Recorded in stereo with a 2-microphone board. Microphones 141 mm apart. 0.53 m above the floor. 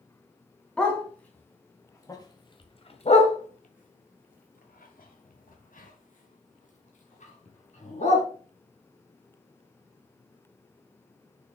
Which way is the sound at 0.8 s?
5° left (ahead or behind).